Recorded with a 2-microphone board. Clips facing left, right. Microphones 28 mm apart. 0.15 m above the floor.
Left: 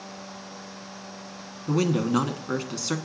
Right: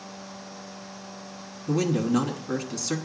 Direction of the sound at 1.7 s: 25° left (ahead or behind).